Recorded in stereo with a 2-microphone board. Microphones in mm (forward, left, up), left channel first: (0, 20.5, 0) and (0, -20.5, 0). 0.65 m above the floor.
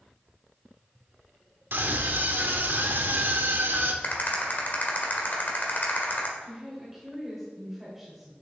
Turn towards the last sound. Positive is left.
turn(degrees=-10)  # may be behind; listen again after turning